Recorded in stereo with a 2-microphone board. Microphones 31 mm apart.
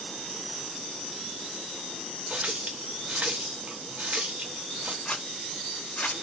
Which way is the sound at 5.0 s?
50° left (ahead or behind).